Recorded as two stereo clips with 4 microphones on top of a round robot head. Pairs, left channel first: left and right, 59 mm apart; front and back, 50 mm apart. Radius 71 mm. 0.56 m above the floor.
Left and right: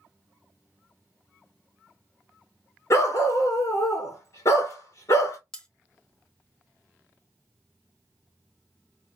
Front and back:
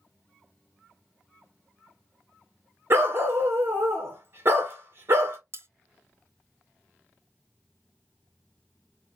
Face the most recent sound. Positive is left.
turn(degrees=165)